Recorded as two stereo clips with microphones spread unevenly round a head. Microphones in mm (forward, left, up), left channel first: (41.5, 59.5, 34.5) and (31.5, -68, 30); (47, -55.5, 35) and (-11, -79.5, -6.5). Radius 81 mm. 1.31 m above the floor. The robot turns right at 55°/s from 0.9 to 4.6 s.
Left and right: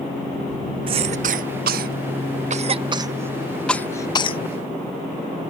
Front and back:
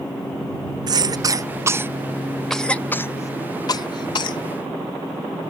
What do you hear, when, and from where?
0.9 s a cough: 150° right; by 4.4 s 40° left